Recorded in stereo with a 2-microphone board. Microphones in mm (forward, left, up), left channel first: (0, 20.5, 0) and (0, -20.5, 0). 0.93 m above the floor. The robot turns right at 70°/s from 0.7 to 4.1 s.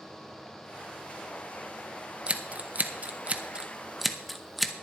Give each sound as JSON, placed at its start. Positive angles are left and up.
{"t": 2.3, "sound": "scissors", "side_deg": -30, "distance_m": 0.8}